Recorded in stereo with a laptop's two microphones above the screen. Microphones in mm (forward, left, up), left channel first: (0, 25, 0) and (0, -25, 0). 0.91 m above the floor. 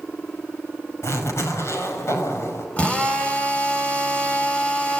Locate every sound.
1.0 s a zipper: 65° left (ahead or behind), 5.5 m
2.8 s a drill: 25° left (ahead or behind), 6 m